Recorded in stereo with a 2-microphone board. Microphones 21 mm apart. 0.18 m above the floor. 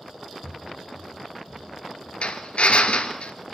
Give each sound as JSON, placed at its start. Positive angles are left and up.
{"t": 0.4, "sound": "footsteps", "side_deg": -75, "distance_m": 1.4}
{"t": 2.2, "sound": "a drill", "side_deg": 70, "distance_m": 1.6}